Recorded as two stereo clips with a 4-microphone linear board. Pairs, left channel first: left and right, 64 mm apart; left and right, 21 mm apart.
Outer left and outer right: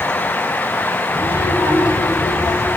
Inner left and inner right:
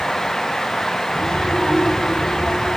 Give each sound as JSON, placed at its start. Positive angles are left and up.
{"t": 1.1, "sound": "a child speaking", "side_deg": 65, "distance_m": 5.0}